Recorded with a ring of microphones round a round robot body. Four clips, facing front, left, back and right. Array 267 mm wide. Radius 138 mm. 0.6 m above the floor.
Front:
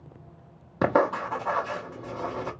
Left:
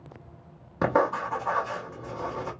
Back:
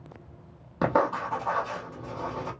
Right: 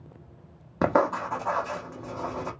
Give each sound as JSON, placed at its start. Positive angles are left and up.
{"t": 0.8, "sound": "writing", "azimuth_deg": -55, "distance_m": 1.1}